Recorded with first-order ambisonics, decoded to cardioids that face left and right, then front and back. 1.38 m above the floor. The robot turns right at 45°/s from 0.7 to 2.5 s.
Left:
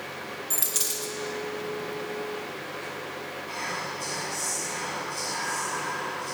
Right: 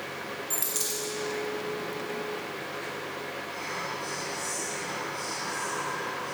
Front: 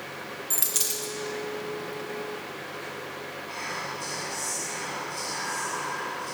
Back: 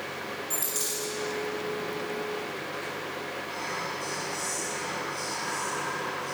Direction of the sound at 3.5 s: 65° left.